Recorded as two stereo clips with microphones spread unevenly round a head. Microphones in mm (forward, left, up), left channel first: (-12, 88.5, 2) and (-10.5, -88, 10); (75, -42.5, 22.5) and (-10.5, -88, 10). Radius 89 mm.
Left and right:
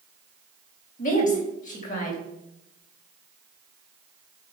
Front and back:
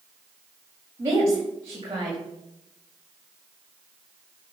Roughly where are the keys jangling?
No keys jangling in this recording.